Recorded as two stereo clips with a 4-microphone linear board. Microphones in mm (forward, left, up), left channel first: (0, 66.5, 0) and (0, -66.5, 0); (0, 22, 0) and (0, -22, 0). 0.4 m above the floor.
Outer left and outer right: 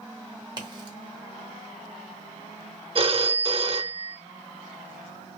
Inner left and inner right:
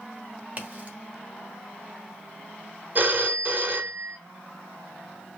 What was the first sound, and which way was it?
A crack, 35° right (ahead or behind).